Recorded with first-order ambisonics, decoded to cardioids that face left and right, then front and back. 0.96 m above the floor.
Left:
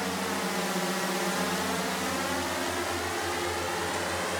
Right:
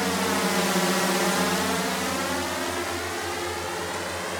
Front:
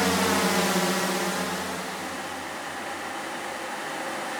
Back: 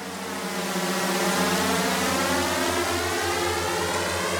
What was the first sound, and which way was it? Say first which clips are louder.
A drone: right 6 dB, front 9 dB; 30° right.